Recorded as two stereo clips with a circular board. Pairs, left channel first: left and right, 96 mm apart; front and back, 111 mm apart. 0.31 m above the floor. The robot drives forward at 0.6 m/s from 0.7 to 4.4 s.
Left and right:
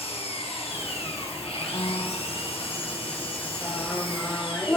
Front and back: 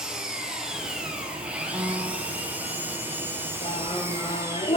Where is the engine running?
95° left, 6 m; by 4.8 s 115° left, 6.5 m.